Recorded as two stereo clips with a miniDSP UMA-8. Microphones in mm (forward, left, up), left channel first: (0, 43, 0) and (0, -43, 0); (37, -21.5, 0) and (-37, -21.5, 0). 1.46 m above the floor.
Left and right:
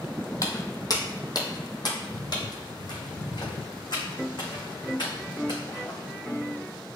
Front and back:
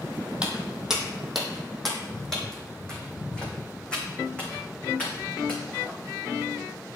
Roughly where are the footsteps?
Left.